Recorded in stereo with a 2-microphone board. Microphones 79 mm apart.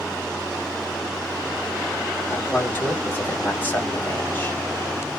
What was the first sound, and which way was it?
A man speaking, 25° left (ahead or behind).